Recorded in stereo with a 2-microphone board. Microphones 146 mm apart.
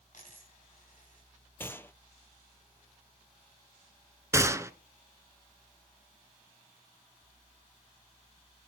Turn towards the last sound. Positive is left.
turn(degrees=-20)  # may be behind; listen again after turning